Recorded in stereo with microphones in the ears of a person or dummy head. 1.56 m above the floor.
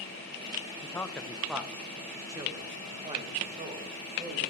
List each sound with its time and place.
0.8 s a man speaking: 15° left (ahead or behind), 0.9 m; by 4.5 s 35° right (ahead or behind), 2.5 m